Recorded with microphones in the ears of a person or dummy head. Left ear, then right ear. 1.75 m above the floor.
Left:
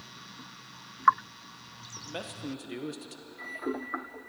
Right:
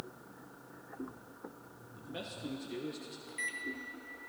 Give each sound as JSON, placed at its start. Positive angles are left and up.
{"t": 2.0, "sound": "a man speaking", "side_deg": 35, "distance_m": 0.9}
{"t": 3.3, "sound": "a microwave", "side_deg": -50, "distance_m": 0.9}